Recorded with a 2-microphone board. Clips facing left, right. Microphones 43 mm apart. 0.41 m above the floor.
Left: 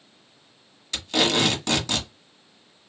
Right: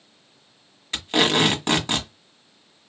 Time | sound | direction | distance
0.9 | tape being pulled | 30° right (ahead or behind) | 1.3 m